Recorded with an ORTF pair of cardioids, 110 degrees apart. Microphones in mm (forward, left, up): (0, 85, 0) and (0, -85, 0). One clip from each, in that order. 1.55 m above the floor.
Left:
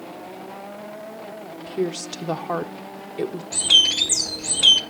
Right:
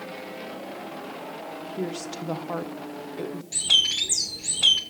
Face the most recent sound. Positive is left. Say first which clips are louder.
# left 5 dB
turn(degrees=15)